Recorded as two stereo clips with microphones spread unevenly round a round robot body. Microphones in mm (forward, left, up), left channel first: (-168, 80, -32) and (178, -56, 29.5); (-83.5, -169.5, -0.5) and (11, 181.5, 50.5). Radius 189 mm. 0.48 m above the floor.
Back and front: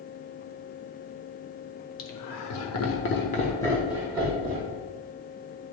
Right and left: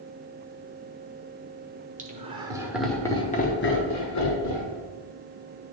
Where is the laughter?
150° left, 1.8 m; by 4.8 s 90° right, 1.8 m.